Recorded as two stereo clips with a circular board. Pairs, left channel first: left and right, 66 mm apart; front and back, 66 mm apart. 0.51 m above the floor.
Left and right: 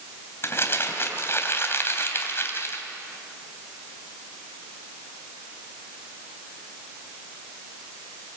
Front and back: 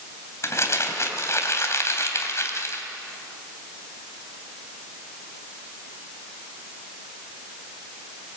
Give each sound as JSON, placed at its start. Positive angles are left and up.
{"t": 0.4, "sound": "crumpling", "azimuth_deg": 40, "distance_m": 3.0}